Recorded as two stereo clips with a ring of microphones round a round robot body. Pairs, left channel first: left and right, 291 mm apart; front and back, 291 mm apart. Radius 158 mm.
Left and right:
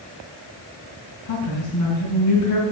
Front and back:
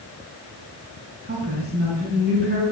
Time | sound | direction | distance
1.2 | a woman speaking | 120° left | 3.5 m